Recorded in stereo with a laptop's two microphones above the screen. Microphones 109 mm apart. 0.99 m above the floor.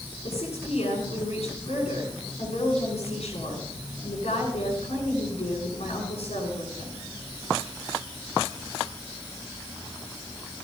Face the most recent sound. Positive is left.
turn(degrees=75)  # may be behind; listen again after turning